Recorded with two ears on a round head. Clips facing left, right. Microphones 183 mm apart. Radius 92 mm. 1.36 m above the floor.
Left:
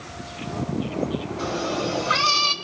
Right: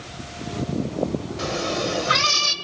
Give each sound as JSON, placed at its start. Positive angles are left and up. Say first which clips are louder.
{"t": 1.4, "sound": "a cat meowing", "louder": "even", "side_deg": -30, "distance_m": 1.3}